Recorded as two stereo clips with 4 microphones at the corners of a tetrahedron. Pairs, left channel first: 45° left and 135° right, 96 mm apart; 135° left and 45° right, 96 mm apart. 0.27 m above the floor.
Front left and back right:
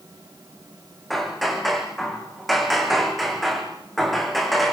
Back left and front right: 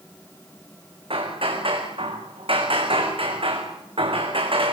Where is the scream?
I don't hear a scream.